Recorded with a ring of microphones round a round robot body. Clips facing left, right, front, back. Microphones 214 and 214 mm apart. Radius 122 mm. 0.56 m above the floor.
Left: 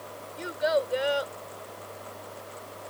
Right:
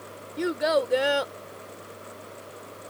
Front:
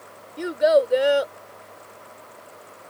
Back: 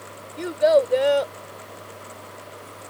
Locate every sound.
0.4 s a child speaking: 80° right